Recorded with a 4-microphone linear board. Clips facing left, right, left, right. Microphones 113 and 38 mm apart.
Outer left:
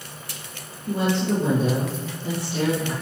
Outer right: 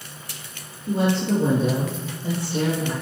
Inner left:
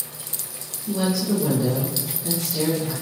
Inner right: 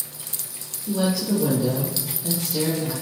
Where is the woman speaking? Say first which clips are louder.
Outer right 1 dB, even; 25° right (ahead or behind), 4 m; by 2.9 s 20° right (ahead or behind), 2.5 m.